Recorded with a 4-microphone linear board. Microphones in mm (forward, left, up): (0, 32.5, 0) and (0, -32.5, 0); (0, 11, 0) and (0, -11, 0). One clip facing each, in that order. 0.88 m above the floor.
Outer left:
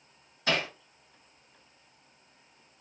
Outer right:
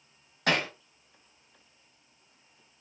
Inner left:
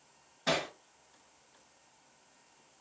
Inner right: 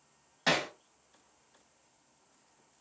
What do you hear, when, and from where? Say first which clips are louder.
0.5 s hammering: outer right 2 dB, inner right 2 dB; 65° right (ahead or behind), 1.4 m